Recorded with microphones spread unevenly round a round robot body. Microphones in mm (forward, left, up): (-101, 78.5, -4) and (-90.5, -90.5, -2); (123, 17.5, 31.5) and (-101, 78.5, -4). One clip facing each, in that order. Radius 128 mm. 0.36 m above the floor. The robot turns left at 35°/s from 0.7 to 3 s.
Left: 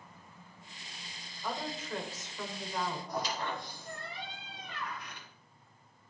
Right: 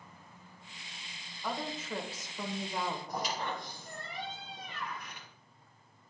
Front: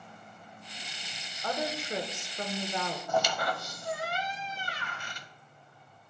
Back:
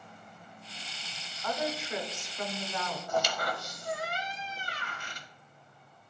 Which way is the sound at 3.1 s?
5° right.